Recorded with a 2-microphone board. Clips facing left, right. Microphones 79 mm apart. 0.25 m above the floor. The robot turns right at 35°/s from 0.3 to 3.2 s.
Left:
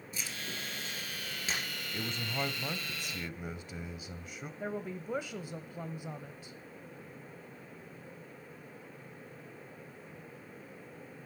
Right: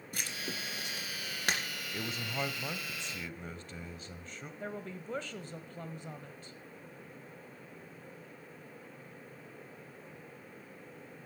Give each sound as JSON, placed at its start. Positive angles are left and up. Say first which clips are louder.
{"t": 0.1, "sound": "writing", "louder": "right 2 dB", "side_deg": -60, "distance_m": 2.5}
{"t": 1.9, "sound": "a man speaking", "louder": "left 1 dB", "side_deg": -5, "distance_m": 1.0}
{"t": 4.6, "sound": "a woman speaking", "louder": "left 4 dB", "side_deg": 10, "distance_m": 0.9}